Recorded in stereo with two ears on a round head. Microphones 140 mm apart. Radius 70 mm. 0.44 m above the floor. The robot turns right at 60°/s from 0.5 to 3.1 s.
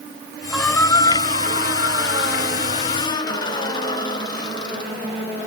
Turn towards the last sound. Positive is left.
turn(degrees=155)